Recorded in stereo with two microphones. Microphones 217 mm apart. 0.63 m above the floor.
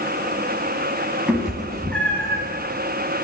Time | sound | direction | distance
1.3 | a cat meowing | 5° right (ahead or behind) | 2.5 m